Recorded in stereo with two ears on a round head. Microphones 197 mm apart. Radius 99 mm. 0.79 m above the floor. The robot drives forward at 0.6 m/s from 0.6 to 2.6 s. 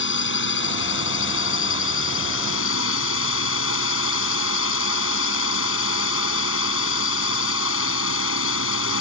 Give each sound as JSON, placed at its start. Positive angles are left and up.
{"t": 0.0, "sound": "a drone", "side_deg": 55}